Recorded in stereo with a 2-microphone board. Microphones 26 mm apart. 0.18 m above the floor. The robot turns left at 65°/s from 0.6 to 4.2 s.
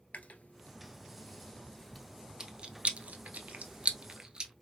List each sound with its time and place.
0.1 s chewing: 75° left (ahead or behind), 0.8 m; by 4.5 s 30° right (ahead or behind), 0.8 m